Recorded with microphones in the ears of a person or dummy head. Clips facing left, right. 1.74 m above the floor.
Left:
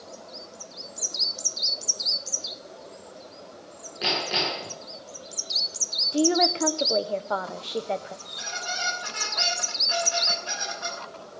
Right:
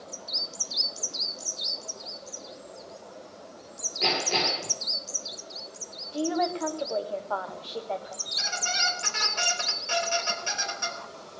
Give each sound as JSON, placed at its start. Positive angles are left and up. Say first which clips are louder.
{"t": 4.0, "sound": "hammering", "louder": "right 1 dB", "side_deg": 5, "distance_m": 7.0}
{"t": 6.1, "sound": "a woman speaking", "louder": "left 5 dB", "side_deg": 30, "distance_m": 0.8}
{"t": 8.2, "sound": "a squeak", "louder": "right 1 dB", "side_deg": -40, "distance_m": 3.5}